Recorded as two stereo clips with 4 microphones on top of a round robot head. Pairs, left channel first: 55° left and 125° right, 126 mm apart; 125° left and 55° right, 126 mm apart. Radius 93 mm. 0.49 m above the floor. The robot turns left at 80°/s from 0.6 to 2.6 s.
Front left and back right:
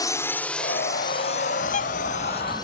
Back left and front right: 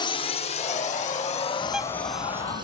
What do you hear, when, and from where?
0.0 s a drone: 100° left; by 2.6 s 5° right
1.6 s a bird: 40° left; by 2.6 s 40° right